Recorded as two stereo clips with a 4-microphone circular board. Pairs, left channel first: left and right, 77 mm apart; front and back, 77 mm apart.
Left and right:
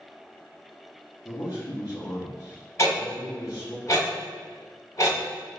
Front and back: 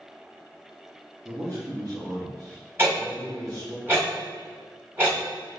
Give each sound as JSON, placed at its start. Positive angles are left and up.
{"t": 1.2, "sound": "a man speaking", "azimuth_deg": 140, "distance_m": 0.8}
{"t": 2.8, "sound": "ticking", "azimuth_deg": 130, "distance_m": 1.5}